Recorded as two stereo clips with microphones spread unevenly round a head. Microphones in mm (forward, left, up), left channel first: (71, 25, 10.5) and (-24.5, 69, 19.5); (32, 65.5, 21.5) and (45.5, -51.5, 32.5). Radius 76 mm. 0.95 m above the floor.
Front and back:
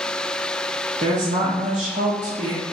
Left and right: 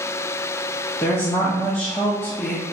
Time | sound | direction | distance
1.0 | a woman speaking | 160° left | 1.0 m